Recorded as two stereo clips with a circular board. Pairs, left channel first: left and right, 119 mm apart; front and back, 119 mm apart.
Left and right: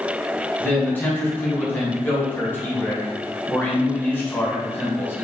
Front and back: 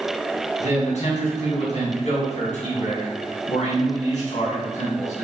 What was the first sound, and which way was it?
A man speaking, 15° left.